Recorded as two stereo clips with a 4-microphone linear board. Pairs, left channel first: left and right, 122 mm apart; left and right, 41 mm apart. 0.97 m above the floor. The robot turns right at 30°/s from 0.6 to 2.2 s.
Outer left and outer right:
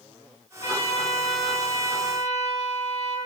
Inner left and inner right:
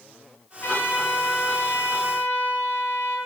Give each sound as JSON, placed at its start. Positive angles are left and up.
{"t": 0.6, "sound": "a trumpet", "azimuth_deg": 75, "distance_m": 7.5}